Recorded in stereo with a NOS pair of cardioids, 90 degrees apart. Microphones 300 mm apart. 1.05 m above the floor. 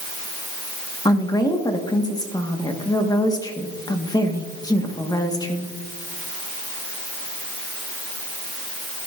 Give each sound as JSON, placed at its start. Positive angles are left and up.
{"t": 1.1, "sound": "a woman speaking", "azimuth_deg": 15, "distance_m": 1.3}